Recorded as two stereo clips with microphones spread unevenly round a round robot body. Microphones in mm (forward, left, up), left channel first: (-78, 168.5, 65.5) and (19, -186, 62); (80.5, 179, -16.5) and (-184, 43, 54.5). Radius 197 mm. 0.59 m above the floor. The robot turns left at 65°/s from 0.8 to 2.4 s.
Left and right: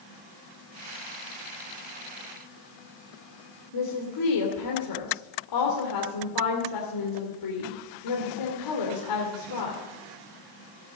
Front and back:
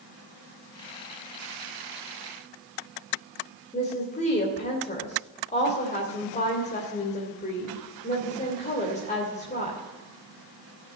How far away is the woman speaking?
About 2.5 m.